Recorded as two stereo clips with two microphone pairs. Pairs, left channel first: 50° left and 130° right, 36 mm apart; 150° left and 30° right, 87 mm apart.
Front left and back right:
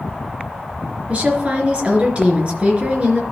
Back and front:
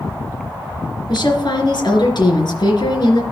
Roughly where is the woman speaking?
Behind.